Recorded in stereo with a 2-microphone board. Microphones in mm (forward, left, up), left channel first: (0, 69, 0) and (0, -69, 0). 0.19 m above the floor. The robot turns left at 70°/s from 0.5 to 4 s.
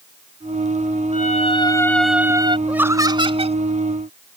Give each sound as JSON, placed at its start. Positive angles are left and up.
{"t": 1.1, "sound": "a violin", "azimuth_deg": 65}
{"t": 2.7, "sound": "laughter", "azimuth_deg": -10}